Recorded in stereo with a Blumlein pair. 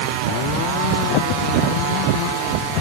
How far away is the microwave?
No microwave in this recording.